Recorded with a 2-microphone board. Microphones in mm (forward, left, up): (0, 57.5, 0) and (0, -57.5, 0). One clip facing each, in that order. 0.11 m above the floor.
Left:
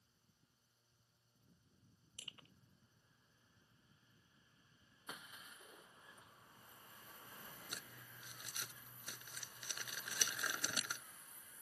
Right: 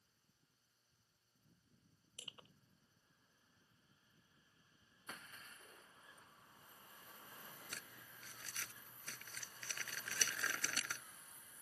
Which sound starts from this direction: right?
Crushing, at 2.2 s.